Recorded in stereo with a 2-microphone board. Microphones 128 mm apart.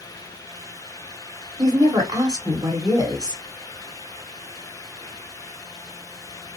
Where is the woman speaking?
30° right (ahead or behind), 1.7 m.